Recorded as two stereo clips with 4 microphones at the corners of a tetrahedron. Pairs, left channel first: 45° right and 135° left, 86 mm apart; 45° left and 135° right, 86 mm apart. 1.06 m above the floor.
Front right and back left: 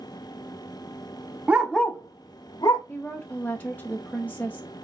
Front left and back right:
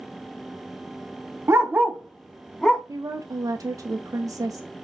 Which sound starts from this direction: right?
A woman speaking, at 2.9 s.